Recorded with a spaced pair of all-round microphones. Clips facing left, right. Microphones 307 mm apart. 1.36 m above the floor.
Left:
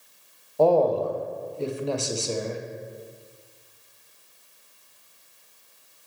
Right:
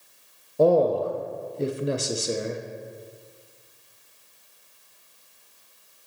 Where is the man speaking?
20° right (ahead or behind), 0.6 m.